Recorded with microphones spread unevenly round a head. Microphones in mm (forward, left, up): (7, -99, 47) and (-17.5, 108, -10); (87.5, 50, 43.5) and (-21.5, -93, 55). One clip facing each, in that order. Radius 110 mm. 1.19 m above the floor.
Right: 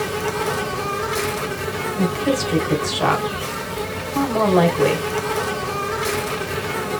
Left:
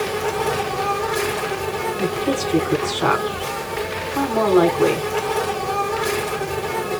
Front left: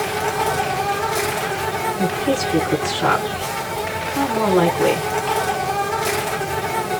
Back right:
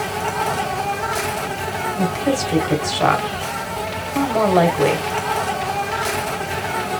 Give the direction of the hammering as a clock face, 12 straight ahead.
I don't hear hammering.